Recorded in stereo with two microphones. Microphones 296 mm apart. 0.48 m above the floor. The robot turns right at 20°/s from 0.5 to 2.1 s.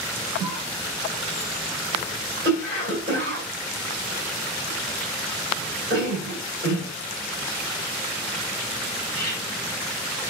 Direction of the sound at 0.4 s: 10° right (ahead or behind).